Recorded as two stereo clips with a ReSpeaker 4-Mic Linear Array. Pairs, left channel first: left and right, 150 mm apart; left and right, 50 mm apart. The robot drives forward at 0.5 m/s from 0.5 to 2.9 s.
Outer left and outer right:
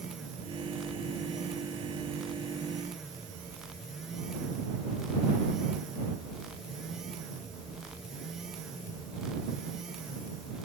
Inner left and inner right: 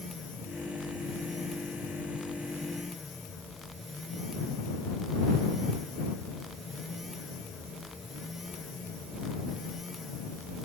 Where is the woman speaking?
No woman speaking in this recording.